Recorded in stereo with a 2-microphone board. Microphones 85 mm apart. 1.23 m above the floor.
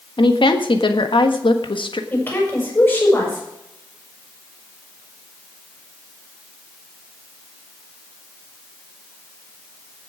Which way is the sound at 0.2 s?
80° left.